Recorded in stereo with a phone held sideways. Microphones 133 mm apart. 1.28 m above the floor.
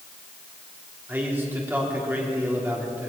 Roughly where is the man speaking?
Centre.